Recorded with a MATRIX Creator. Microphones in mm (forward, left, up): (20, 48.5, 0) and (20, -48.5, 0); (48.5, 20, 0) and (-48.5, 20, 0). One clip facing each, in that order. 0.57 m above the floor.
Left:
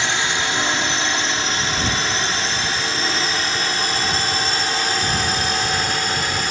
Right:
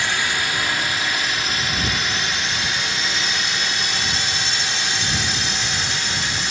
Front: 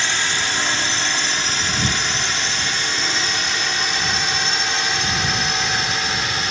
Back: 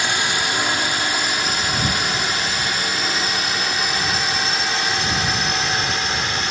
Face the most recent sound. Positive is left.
turn(degrees=90)